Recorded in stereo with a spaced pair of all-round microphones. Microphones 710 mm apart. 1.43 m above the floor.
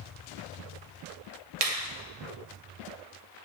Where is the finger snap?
55° right (ahead or behind), 0.6 m.